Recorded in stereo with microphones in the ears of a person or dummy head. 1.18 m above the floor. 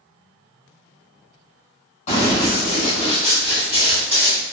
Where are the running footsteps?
40° left (ahead or behind), 1.9 m; by 4.4 s 5° left (ahead or behind), 1.2 m.